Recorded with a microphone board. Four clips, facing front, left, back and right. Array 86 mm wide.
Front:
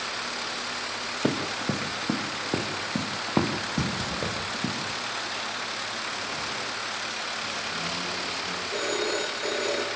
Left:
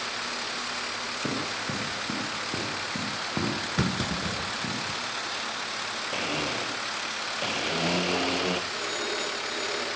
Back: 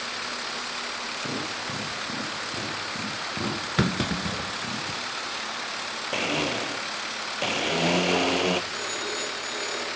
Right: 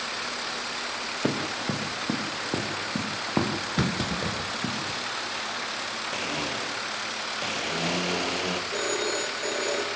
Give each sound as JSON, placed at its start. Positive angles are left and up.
{"t": 1.2, "sound": "running footsteps", "azimuth_deg": -30, "distance_m": 6.0}
{"t": 3.8, "sound": "a clunk", "azimuth_deg": -175, "distance_m": 1.8}
{"t": 6.1, "sound": "a blender", "azimuth_deg": 170, "distance_m": 1.7}
{"t": 8.7, "sound": "a phone ringing", "azimuth_deg": -40, "distance_m": 6.5}